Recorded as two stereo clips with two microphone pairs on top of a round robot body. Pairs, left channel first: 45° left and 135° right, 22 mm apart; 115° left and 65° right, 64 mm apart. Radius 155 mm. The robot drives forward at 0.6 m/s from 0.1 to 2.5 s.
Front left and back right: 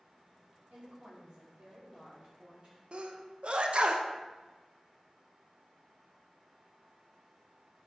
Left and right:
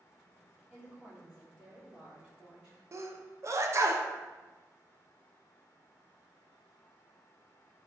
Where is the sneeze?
115° right, 0.5 m.